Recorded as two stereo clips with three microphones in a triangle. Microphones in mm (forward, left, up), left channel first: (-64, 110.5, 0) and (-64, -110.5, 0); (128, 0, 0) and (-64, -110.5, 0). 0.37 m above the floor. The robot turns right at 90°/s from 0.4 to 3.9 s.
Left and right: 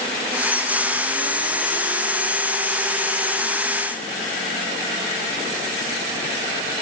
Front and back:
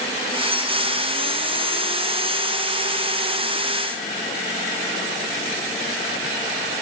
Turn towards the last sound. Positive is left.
No sound to turn to.